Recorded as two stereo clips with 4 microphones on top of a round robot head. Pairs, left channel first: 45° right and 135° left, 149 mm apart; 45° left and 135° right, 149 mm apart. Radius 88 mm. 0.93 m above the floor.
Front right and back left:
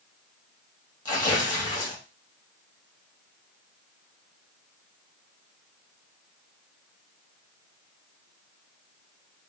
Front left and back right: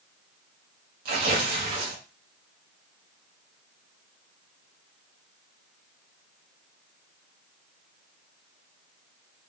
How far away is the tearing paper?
About 2.5 m.